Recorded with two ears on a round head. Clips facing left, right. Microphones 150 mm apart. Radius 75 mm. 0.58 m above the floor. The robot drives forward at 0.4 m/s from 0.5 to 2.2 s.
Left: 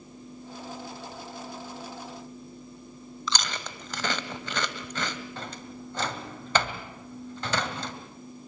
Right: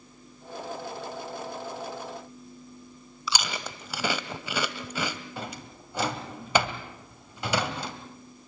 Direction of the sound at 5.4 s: 10° right (ahead or behind).